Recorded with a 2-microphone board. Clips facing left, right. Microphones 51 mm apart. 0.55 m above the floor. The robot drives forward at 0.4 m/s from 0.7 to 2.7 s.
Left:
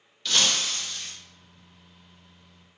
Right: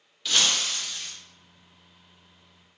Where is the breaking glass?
5° right (ahead or behind), 0.8 m.